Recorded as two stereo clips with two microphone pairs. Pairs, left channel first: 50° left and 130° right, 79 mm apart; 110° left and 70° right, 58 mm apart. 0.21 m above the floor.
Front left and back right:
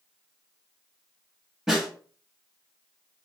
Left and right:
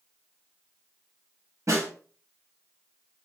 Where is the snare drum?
45° right, 3 m.